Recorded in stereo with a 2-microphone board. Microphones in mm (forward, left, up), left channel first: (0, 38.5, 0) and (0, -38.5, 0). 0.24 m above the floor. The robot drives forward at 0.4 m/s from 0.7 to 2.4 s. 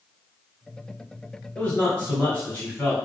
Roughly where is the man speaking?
Centre.